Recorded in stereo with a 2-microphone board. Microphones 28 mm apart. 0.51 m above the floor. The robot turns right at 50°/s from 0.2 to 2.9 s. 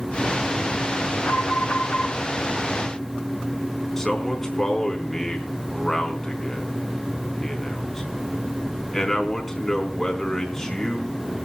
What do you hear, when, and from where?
1.2 s an alarm: 85° left, 2 m; by 2.1 s 130° left, 2 m
4.0 s a man speaking: 10° left (ahead or behind), 4 m